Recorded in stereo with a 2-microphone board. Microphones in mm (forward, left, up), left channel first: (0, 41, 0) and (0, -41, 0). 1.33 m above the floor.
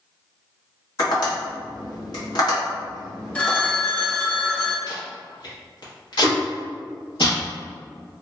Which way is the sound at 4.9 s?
60° left (ahead or behind).